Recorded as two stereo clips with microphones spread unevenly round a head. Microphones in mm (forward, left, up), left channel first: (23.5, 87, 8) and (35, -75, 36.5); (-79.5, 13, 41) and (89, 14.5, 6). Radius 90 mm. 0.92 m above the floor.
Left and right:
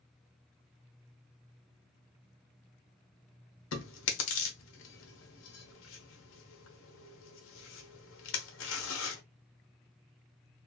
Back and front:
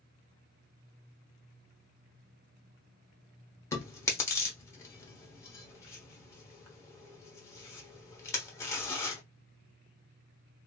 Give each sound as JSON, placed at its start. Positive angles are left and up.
{"t": 3.7, "sound": "chewing", "azimuth_deg": 115, "distance_m": 0.8}